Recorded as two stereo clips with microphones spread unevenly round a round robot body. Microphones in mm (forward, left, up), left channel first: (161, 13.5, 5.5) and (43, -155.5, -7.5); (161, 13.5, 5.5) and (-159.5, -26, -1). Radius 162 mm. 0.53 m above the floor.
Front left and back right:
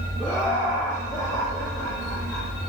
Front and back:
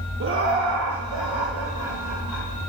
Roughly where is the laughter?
Behind left.